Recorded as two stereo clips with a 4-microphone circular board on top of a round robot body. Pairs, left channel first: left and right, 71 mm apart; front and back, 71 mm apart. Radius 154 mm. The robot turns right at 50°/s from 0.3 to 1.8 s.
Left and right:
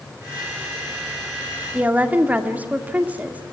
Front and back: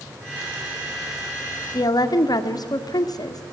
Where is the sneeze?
I don't hear a sneeze.